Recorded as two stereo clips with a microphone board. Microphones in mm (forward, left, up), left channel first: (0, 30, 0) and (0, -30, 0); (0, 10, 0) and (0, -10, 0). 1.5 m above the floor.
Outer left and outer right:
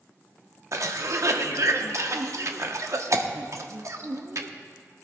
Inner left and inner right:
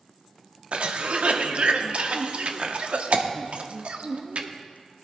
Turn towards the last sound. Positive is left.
turn(degrees=-60)  # may be behind; listen again after turning